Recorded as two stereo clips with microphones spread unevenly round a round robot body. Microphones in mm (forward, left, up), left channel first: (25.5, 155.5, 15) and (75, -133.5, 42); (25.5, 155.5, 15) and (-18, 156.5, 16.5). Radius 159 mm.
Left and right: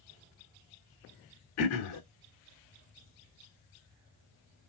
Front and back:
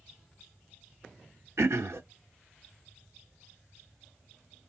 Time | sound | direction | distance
1.6 | throat clearing | 145° left | 0.8 m